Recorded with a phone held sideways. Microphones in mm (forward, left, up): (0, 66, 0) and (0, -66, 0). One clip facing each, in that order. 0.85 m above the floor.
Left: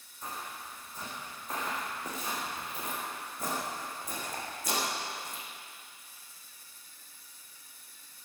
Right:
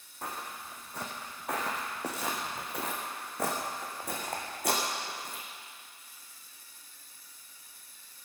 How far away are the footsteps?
About 3 m.